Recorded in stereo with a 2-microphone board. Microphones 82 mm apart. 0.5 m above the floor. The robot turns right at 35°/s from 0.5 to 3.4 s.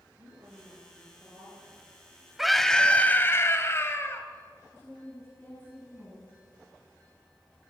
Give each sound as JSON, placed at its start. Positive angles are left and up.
{"t": 0.2, "sound": "a woman speaking", "azimuth_deg": -55, "distance_m": 9.5}
{"t": 2.4, "sound": "a scream", "azimuth_deg": -5, "distance_m": 2.5}
{"t": 4.7, "sound": "a woman speaking", "side_deg": 25, "distance_m": 6.0}